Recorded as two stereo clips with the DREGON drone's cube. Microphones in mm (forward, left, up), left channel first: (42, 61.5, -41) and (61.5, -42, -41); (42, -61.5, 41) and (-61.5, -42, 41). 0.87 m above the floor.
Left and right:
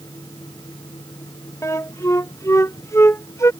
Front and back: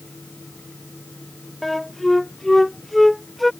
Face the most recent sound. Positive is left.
turn(degrees=75)